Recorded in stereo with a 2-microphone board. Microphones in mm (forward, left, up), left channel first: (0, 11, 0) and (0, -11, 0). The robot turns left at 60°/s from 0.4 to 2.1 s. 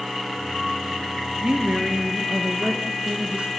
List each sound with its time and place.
1.4 s a woman speaking: 65° right, 2.5 m; by 3.5 s 110° right, 2.5 m